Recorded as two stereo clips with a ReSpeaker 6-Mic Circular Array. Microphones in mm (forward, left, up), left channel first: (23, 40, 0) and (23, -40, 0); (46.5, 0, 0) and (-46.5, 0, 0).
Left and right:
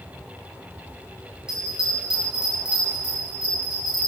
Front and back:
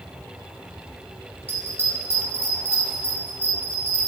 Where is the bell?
150° right, 0.8 m.